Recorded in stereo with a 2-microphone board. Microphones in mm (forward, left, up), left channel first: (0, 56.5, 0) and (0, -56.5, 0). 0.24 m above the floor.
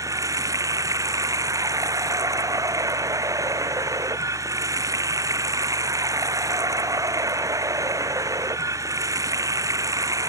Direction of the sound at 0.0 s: 30° right (ahead or behind).